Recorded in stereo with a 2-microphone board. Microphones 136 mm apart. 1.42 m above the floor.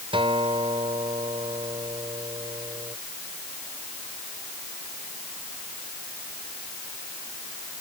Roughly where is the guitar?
Right.